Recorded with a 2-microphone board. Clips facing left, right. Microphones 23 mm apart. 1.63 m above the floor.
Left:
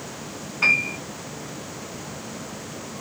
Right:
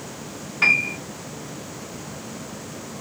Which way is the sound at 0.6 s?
60° right (ahead or behind).